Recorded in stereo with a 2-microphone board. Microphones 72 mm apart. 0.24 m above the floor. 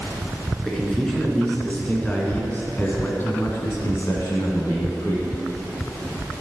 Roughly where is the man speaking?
Centre.